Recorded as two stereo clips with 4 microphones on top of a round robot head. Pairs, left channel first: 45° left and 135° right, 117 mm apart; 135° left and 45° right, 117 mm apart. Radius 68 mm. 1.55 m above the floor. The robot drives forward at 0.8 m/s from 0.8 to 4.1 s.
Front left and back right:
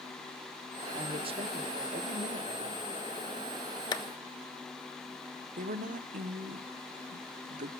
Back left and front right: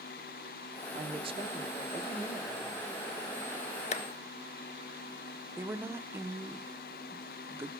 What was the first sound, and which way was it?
A woman speaking, 80° right.